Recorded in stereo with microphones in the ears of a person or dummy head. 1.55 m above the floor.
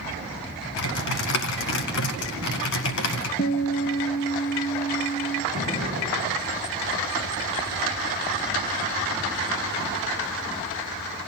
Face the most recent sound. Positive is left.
turn(degrees=45)  # may be behind; listen again after turning